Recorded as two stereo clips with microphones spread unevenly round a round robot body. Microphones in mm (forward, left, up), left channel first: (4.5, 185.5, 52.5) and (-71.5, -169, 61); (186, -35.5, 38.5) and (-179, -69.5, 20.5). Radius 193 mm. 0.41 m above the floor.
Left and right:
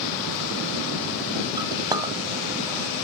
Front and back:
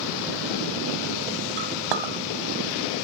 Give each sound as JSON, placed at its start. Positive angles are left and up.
{"t": 1.6, "sound": "a clink", "azimuth_deg": 180, "distance_m": 2.0}